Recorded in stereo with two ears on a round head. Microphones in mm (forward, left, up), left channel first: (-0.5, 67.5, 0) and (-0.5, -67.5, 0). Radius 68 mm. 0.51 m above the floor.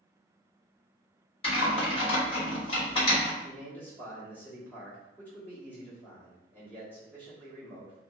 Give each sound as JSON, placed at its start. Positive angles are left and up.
{"t": 1.4, "sound": "typing on a keyboard", "side_deg": 35, "distance_m": 1.6}
{"t": 3.4, "sound": "a man speaking", "side_deg": 10, "distance_m": 0.9}